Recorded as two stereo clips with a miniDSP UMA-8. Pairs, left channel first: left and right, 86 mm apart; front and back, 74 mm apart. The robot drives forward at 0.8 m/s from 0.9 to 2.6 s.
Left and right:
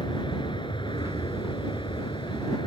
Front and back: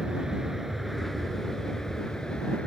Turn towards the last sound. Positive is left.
turn(degrees=75)